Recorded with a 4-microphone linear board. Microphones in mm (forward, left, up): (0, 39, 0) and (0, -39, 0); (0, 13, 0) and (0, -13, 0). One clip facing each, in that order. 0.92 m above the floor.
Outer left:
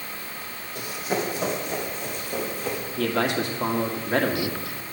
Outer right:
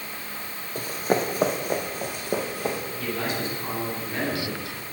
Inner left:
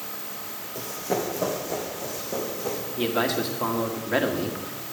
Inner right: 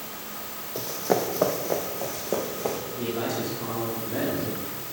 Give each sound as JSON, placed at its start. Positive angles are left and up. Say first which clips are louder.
{"t": 0.8, "sound": "running footsteps", "louder": "outer right 3 dB, inner right 3 dB", "side_deg": -40, "distance_m": 1.5}
{"t": 3.0, "sound": "a man speaking", "louder": "outer left 8 dB, inner left 6 dB", "side_deg": 75, "distance_m": 1.7}